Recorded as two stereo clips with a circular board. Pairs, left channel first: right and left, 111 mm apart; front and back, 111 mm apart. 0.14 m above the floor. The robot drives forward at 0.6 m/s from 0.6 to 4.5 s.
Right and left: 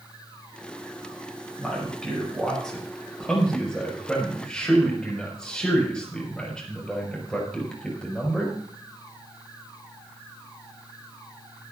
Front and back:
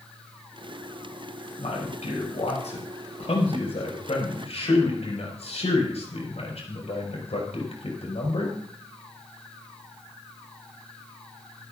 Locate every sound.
1.6 s a man speaking: 5° right, 7 m; by 8.6 s 10° right, 5.5 m